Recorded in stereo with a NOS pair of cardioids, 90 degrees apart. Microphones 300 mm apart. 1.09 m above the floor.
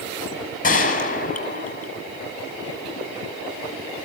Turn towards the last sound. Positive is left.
turn(degrees=25)